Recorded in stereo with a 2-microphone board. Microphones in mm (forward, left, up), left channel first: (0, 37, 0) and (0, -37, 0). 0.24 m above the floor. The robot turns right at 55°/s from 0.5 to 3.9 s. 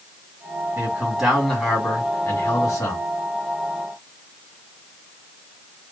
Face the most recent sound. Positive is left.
turn(degrees=140)